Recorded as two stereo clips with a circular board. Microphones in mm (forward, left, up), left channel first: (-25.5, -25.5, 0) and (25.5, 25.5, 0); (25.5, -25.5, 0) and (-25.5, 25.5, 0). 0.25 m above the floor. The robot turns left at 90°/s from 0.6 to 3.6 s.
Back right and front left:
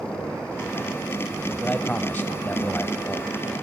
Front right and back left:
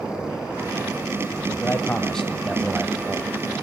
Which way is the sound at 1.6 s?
65° right.